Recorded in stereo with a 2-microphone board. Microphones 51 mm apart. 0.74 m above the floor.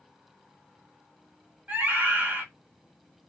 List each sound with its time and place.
1.7 s a scream: 35° right (ahead or behind), 1.5 m